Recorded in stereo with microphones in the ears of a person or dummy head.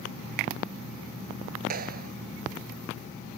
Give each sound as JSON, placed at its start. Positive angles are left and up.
{"t": 1.7, "sound": "a clap", "side_deg": -55}